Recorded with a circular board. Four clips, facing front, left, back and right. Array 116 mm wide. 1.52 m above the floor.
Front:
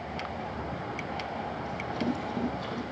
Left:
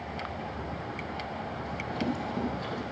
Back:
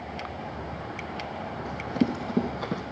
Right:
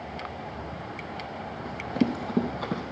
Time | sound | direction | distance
1.6 | running footsteps | 140° right | 3 m